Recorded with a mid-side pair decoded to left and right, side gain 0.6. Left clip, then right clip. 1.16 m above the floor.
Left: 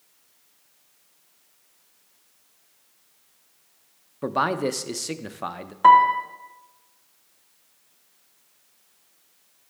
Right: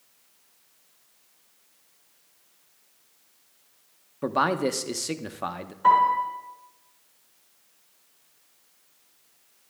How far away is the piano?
About 1.9 m.